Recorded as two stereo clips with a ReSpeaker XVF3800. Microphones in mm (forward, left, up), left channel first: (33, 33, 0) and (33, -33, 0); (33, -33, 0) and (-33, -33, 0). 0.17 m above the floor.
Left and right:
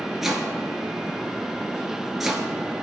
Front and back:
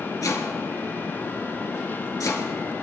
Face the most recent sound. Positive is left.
turn(degrees=-5)